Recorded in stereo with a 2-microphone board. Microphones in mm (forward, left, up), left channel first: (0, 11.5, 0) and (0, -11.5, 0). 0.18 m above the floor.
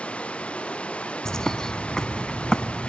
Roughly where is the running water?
Left.